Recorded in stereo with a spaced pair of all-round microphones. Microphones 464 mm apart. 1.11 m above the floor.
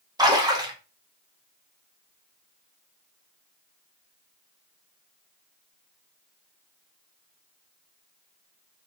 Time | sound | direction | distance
0.2 | a splash | 10° right (ahead or behind) | 0.6 m